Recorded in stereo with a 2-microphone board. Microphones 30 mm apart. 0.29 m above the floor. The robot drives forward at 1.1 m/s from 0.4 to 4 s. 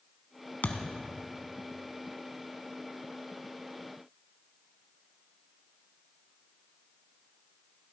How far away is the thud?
About 1.0 m.